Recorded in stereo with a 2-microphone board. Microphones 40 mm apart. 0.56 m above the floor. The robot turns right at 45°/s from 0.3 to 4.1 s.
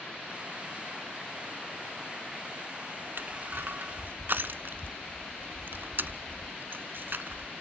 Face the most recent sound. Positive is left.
turn(degrees=-60)  # may be behind; listen again after turning